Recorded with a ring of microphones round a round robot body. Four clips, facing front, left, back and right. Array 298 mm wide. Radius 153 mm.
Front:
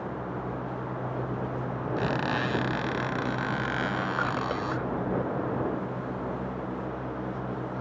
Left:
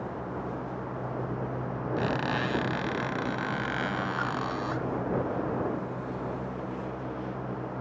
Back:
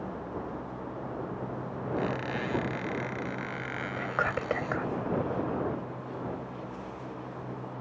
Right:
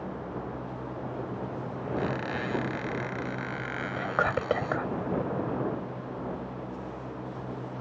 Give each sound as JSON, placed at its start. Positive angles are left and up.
{"t": 2.0, "sound": "a squeak", "azimuth_deg": 30}
{"t": 4.0, "sound": "whispering", "azimuth_deg": -105}